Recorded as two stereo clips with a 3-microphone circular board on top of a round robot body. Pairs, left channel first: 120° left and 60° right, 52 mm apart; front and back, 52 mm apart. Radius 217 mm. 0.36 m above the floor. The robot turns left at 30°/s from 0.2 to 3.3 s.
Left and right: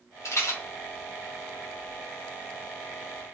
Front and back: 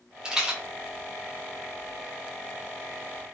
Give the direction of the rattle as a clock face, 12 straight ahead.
8 o'clock.